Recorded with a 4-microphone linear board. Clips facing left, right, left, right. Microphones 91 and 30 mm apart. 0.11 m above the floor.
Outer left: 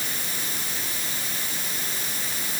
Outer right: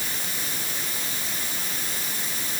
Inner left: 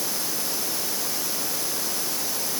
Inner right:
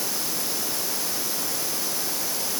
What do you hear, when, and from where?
Only background noise.